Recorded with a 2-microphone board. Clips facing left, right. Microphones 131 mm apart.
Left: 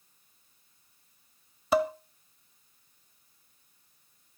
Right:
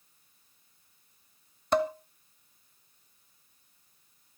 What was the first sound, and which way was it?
Dishes clattering, 5° left (ahead or behind).